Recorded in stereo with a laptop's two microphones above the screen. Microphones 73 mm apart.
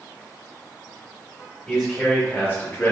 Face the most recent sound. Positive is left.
turn(degrees=30)  # may be behind; listen again after turning